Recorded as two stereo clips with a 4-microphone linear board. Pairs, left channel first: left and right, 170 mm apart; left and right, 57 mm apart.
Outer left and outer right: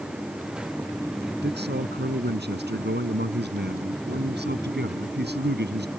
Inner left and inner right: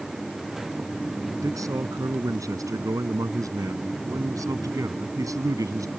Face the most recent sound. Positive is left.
turn(degrees=-85)